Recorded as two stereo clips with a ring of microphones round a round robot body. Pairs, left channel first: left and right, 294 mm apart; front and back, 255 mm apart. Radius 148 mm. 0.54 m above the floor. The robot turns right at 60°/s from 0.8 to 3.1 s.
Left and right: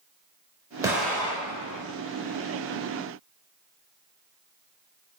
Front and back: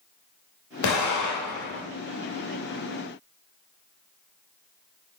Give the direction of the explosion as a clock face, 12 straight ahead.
12 o'clock.